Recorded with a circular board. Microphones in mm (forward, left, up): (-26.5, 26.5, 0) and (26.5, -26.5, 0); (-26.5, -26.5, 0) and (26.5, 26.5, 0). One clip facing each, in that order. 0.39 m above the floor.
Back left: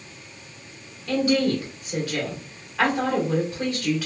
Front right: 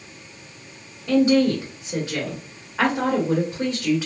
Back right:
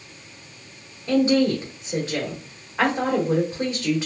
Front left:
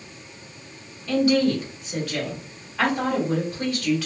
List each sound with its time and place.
1.1 s a woman speaking: 90° right, 1.3 m